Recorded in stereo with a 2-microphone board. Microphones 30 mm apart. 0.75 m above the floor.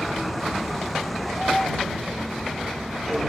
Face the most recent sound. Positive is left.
turn(degrees=0)  # may be behind; listen again after turning